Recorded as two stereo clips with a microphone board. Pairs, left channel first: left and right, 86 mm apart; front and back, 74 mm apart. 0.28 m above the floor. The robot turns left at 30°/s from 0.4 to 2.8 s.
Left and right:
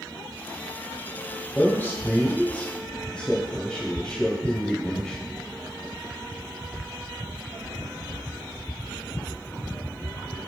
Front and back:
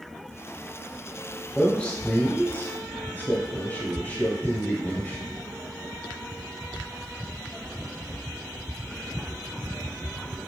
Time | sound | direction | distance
1.6 | a man speaking | 60° left | 1.2 m